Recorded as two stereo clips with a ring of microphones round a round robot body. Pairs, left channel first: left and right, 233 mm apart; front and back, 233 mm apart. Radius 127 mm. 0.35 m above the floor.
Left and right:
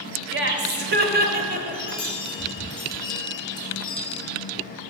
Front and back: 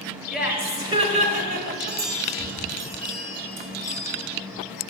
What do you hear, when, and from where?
0.3 s laughter: 90° right, 1.4 m; by 2.0 s 150° right, 1.6 m
1.7 s a chime: 155° left, 1.5 m